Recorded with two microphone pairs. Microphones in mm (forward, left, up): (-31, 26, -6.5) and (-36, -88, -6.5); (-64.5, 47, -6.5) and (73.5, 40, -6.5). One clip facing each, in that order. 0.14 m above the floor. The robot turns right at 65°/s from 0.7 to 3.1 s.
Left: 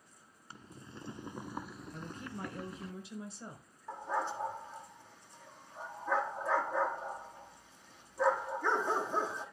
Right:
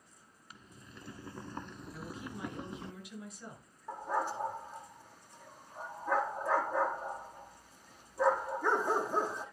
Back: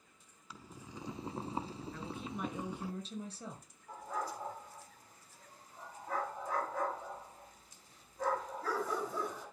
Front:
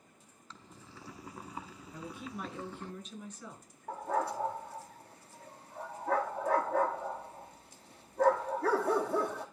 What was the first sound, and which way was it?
Boiling, 110° left.